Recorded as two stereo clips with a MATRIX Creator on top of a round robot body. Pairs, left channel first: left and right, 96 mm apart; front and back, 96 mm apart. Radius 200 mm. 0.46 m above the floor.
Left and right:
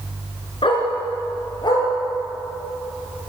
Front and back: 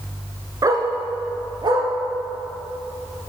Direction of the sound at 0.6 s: 125° left.